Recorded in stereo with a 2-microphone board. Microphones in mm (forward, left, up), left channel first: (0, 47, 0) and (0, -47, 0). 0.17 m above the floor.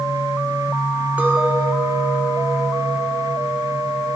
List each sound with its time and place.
1.2 s a clink: 15° right (ahead or behind), 1.4 m